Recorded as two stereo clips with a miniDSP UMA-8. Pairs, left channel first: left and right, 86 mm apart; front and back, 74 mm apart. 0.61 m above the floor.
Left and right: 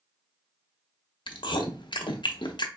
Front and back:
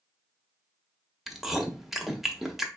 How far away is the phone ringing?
I don't hear a phone ringing.